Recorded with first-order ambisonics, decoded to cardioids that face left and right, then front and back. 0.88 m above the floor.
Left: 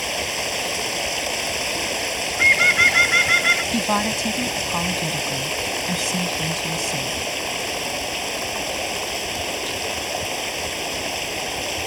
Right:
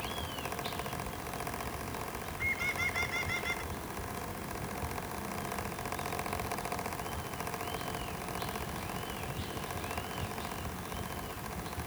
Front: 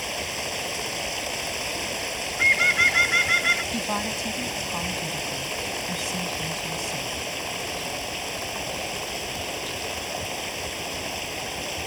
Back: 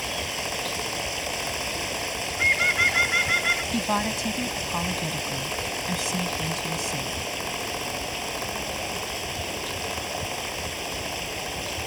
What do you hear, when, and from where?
0.0 s running water: 85° left
2.4 s a bird: 80° left
3.7 s a woman speaking: 100° left